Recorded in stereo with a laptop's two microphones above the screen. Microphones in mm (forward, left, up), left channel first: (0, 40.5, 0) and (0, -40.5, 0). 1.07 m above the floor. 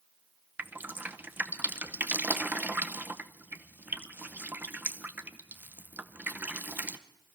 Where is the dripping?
25° right (ahead or behind), 0.8 m.